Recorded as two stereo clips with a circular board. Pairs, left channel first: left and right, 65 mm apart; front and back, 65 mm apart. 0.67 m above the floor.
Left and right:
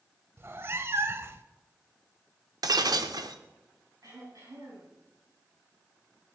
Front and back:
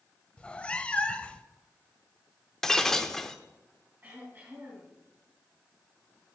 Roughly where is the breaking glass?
Right.